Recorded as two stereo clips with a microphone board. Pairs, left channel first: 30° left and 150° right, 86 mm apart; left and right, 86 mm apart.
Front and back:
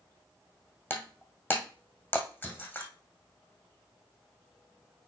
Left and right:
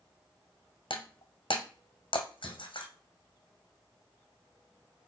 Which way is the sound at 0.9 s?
95° left.